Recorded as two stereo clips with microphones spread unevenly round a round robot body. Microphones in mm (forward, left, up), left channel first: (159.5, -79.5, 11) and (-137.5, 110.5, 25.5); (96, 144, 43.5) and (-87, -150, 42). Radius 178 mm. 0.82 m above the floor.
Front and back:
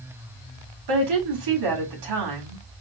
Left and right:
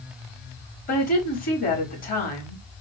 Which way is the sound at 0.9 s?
125° left.